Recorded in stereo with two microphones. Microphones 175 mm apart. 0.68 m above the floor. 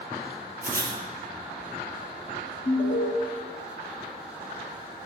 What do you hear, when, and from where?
0.6 s writing: 55° right (ahead or behind), 0.6 m
2.6 s an alarm: 45° left (ahead or behind), 0.8 m